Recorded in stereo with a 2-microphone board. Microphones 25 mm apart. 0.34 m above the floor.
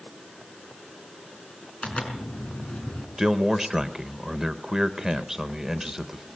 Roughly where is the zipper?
Left.